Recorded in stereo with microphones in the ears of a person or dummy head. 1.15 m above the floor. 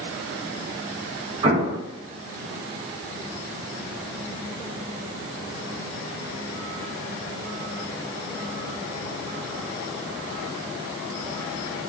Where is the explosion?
25° right (ahead or behind), 0.5 m.